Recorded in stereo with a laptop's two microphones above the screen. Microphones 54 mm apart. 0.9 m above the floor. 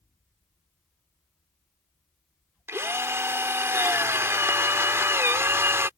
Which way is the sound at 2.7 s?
55° right (ahead or behind).